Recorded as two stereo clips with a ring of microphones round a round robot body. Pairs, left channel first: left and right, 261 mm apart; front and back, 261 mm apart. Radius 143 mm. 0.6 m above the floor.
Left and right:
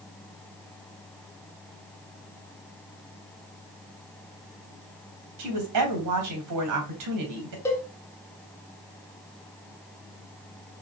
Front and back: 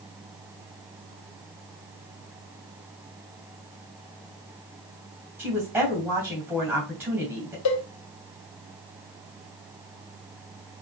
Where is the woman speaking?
95° right, 3 m.